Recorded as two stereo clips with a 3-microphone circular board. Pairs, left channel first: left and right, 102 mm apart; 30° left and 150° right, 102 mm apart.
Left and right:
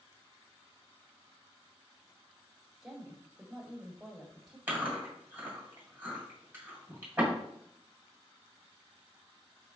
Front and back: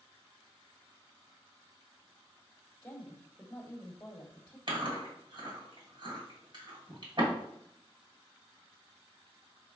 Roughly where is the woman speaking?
Ahead.